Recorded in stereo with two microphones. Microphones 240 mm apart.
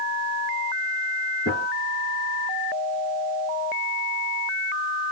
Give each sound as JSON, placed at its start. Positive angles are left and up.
{"t": 1.4, "sound": "a gunshot", "side_deg": 50, "distance_m": 2.5}